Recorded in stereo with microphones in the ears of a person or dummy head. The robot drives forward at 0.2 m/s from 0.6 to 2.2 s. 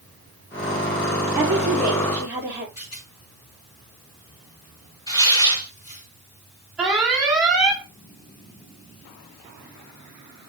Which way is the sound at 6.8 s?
5° right (ahead or behind).